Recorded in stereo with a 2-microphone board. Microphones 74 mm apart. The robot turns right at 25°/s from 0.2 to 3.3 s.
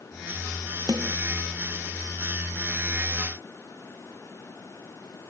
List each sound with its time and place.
0.9 s a snare drum: 75° right (ahead or behind); by 1.2 s 80° right